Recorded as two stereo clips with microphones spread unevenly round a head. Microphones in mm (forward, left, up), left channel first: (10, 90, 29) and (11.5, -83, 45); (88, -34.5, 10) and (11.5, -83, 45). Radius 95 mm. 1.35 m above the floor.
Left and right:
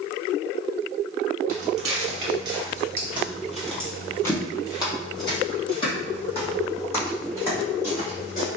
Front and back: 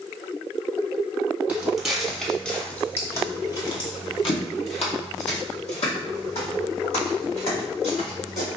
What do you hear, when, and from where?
1.5 s footsteps: 105° right, 1.7 m; by 8.5 s 40° left, 4 m